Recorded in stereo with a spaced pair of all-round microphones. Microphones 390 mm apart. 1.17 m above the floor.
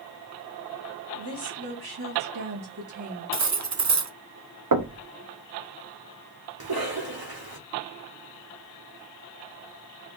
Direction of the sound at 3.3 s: 45° right (ahead or behind).